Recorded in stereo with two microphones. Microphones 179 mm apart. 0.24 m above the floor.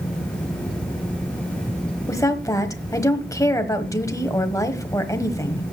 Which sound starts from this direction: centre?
A woman speaking, at 2.1 s.